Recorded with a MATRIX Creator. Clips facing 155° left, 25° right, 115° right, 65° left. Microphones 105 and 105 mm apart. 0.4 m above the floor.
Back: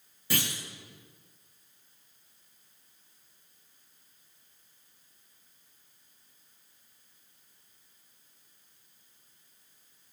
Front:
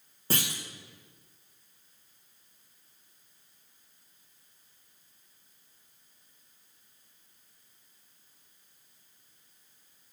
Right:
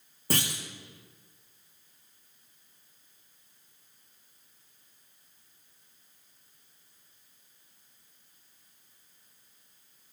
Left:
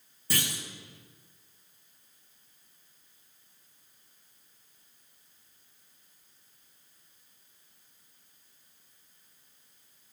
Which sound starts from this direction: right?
A clunk, at 0.3 s.